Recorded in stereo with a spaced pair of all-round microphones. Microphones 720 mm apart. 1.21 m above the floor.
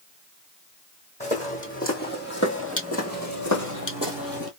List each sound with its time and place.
1.2 s footsteps: 10° left (ahead or behind), 2.5 m; by 4.5 s 30° left (ahead or behind), 1.3 m